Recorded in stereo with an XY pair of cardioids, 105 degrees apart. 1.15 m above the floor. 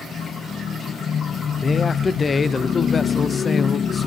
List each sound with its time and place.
1.6 s a man speaking: 35° left, 0.6 m